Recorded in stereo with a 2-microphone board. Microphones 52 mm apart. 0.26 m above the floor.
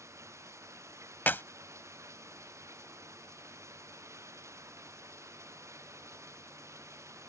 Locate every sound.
0.0 s running water: 75° right (ahead or behind)
1.3 s a clap: 40° left (ahead or behind)